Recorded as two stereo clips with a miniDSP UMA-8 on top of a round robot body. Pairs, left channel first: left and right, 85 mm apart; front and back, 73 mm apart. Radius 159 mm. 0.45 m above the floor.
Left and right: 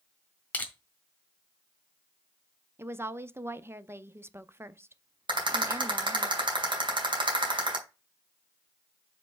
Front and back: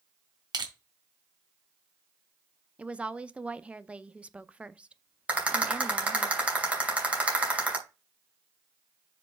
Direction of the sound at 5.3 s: 110° right.